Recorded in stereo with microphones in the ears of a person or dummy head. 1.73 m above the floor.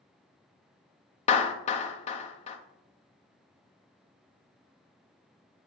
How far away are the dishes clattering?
No dishes clattering in this recording.